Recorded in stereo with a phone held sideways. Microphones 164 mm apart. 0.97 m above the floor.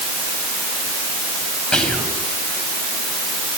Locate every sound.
1.7 s whispering: 5° left (ahead or behind), 5 m